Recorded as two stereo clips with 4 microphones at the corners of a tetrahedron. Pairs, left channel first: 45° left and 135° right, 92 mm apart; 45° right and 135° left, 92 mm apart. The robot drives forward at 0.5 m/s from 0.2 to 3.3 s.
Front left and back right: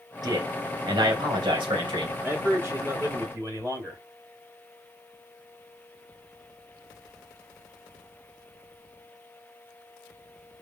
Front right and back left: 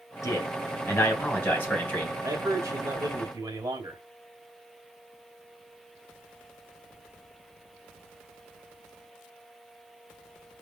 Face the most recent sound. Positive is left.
turn(degrees=175)